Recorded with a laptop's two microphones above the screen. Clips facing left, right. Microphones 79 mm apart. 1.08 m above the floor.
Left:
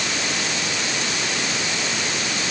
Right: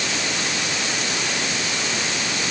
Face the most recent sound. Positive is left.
No sound to turn to.